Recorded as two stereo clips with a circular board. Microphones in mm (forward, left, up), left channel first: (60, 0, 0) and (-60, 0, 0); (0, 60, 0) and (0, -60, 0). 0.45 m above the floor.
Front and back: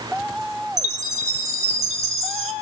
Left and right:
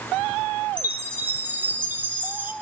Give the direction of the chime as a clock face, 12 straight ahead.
5 o'clock.